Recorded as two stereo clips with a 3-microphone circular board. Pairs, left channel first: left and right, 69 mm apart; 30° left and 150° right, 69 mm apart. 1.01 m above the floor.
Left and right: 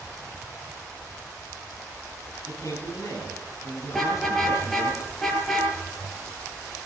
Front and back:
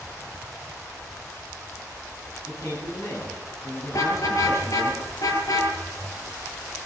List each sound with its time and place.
2.5 s a man speaking: 65° left, 9.5 m
3.9 s a car horn: 5° left, 8 m